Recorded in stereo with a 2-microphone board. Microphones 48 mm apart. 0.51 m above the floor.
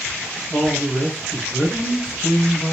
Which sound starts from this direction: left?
A man speaking, at 0.5 s.